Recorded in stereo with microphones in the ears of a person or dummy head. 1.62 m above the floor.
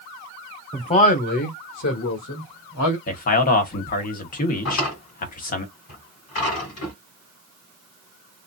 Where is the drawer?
65° left (ahead or behind), 3 m.